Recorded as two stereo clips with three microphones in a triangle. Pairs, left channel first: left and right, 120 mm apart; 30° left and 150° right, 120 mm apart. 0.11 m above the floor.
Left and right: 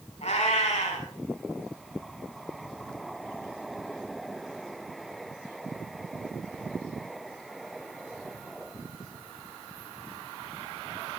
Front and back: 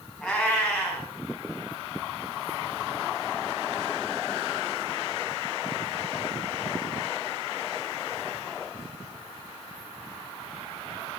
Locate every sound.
0.2 s a cat meowing: 105° left, 5 m